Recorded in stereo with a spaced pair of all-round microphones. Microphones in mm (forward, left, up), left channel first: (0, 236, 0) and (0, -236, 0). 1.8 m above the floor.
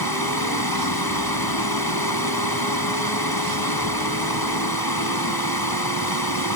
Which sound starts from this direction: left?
Running water, at 0.0 s.